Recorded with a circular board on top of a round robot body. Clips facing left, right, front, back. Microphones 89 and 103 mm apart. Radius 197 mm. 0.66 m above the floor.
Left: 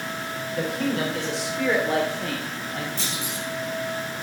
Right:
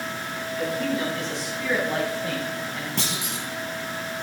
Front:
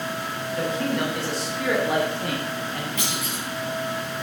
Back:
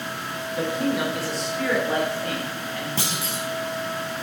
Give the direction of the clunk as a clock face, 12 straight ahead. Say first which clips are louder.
Right 1 dB, back 1 dB; 4 o'clock.